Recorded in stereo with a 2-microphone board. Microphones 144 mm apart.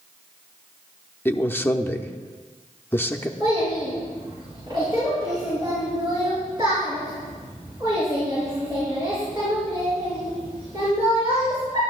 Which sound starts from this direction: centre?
A man speaking, at 1.2 s.